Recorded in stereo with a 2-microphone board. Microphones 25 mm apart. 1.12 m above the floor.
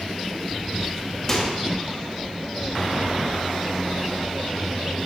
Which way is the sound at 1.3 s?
15° left (ahead or behind).